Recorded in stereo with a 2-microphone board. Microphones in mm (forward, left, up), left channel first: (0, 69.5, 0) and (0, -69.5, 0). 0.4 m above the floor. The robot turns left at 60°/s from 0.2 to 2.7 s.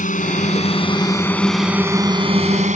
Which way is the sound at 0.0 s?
70° left (ahead or behind).